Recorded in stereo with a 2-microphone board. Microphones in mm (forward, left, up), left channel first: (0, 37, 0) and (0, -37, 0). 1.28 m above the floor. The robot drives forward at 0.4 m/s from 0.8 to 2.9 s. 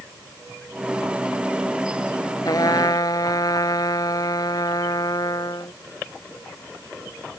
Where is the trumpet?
55° left (ahead or behind).